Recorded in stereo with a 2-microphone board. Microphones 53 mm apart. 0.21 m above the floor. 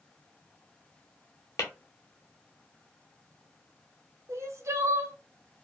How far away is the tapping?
About 1.4 m.